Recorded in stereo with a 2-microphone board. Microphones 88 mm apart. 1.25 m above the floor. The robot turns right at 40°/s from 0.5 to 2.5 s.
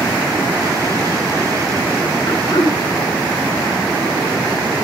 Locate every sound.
2.3 s throat clearing: 80° left, 4.5 m; by 2.8 s 70° left (ahead or behind), 4.5 m